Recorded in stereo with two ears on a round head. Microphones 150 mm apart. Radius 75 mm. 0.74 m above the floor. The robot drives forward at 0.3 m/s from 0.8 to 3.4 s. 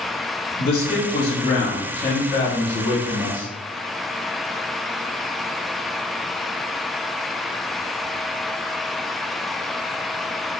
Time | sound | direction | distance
0.6 | a man speaking | 50° left (ahead or behind) | 0.7 m